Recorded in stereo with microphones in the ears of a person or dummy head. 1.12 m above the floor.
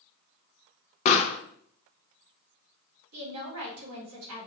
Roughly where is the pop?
Left.